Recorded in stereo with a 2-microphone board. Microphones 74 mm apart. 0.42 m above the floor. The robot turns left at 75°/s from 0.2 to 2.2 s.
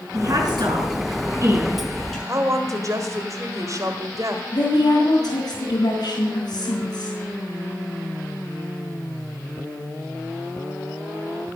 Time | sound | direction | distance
0.1 | a woman speaking | 40° right (ahead or behind) | 6 m
2.3 | a woman speaking | 45° right (ahead or behind) | 1.6 m
4.5 | a woman speaking | 55° left (ahead or behind) | 2.5 m